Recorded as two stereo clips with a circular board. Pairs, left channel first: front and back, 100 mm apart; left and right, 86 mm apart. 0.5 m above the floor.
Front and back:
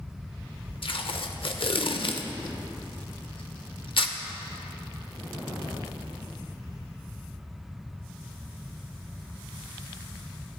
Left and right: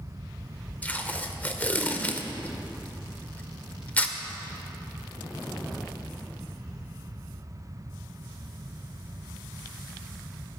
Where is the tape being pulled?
20° left, 0.7 m.